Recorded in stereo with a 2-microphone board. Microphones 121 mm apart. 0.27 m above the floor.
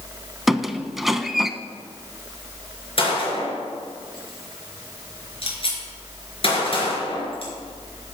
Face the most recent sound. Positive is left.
turn(degrees=50)  # may be behind; listen again after turning